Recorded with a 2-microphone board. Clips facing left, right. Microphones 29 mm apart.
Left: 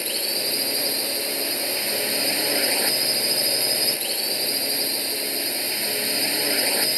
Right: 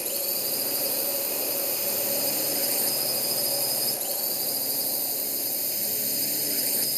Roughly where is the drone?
Left.